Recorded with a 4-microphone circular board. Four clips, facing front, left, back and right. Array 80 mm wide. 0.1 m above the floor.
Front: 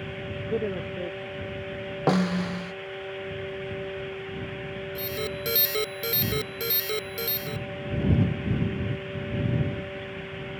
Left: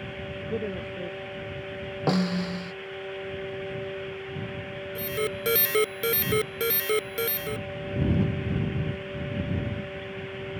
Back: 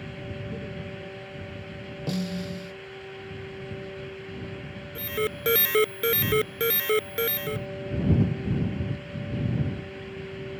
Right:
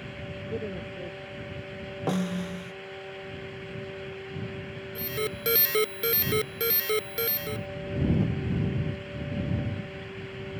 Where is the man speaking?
15° left; by 1.8 s 5° left.